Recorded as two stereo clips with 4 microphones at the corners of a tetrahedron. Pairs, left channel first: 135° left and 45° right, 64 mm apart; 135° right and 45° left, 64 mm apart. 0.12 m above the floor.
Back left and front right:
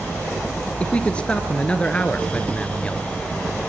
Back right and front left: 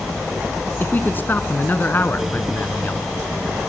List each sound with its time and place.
0.8 s a man speaking: 165° right, 1.6 m